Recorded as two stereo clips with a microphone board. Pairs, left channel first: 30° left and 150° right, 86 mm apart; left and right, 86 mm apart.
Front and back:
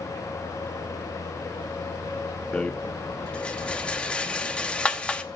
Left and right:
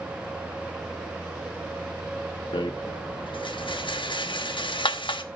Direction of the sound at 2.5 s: 105° left.